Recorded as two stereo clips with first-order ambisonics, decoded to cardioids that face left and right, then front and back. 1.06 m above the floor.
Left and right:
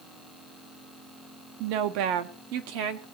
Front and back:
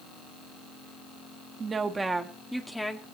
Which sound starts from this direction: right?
A woman speaking, at 1.6 s.